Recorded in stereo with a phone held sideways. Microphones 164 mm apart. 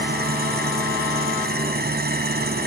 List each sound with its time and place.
0.0 s an engine running: 75° right (ahead or behind)